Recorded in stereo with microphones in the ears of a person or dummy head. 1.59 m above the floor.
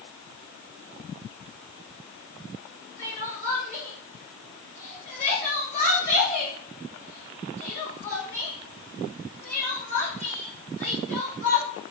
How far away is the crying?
About 1.4 m.